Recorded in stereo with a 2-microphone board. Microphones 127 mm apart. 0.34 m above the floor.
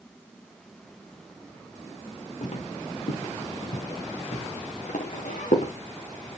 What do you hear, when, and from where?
2.4 s footsteps: 65° left (ahead or behind), 6 m; by 5.7 s 80° left, 5.5 m